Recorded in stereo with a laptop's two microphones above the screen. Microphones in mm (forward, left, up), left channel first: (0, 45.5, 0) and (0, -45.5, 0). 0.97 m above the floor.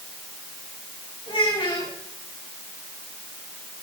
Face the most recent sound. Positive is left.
turn(degrees=75)  # may be behind; listen again after turning